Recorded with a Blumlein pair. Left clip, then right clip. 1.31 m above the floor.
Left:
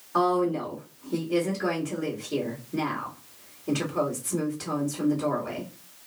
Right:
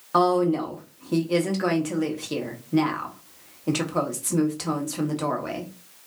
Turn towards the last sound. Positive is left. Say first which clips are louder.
# right 3 dB
turn(degrees=-45)